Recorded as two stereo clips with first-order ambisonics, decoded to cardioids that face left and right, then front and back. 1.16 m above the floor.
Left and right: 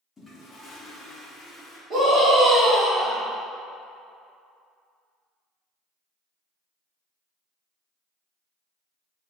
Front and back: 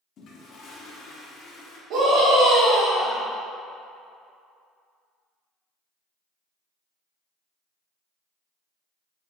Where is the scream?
145° right, 1.3 m.